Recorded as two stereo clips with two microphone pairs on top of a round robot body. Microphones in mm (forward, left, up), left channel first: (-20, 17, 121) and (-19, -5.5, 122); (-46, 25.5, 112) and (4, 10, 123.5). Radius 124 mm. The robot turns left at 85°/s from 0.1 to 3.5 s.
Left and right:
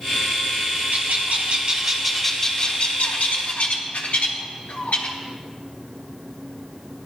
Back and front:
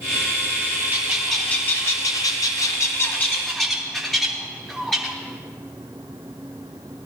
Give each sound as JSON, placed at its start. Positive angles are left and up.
{"t": 0.9, "sound": "a bird", "azimuth_deg": -65, "distance_m": 0.9}